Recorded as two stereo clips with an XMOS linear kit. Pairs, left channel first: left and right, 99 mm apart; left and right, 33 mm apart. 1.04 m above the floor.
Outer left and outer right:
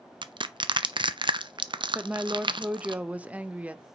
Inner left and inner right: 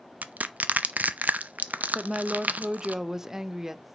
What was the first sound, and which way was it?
Crushing, 55° right (ahead or behind).